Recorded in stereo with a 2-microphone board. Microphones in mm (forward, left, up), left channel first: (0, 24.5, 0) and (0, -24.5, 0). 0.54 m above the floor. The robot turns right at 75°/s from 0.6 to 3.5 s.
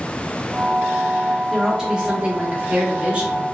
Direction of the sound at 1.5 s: 175° left.